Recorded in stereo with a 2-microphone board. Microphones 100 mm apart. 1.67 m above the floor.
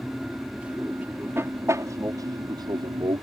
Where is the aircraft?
5° right (ahead or behind); by 3.2 s 55° right (ahead or behind).